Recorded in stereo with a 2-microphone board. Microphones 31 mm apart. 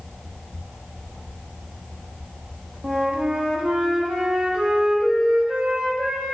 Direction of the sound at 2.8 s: 40° right (ahead or behind).